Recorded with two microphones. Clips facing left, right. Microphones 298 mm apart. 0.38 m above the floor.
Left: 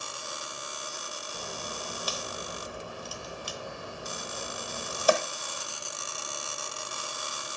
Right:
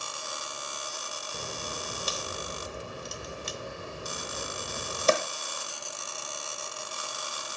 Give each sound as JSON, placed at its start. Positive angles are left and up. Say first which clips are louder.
{"t": 1.3, "sound": "a crack", "louder": "right 1 dB", "side_deg": -25, "distance_m": 1.1}